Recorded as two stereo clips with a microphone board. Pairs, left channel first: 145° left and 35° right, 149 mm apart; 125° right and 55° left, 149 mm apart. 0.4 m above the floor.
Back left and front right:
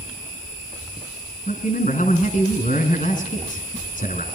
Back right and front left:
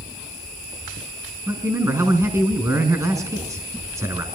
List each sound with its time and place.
1.5 s a man speaking: 125° left, 4.5 m